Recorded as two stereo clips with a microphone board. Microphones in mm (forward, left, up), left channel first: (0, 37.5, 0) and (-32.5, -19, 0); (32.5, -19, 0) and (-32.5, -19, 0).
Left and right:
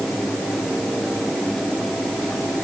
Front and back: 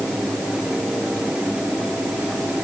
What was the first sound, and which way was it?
Only background noise.